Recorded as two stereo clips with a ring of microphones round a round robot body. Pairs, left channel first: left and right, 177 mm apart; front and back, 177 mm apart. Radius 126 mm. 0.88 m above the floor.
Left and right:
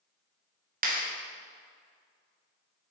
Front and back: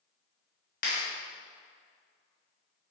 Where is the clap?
50° right, 1.4 m.